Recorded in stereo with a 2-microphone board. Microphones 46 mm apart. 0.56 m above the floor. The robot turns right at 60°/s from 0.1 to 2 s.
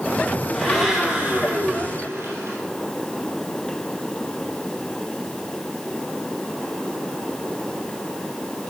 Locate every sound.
0.5 s a blender: 165° left, 3.5 m; by 2.6 s 110° right, 3.5 m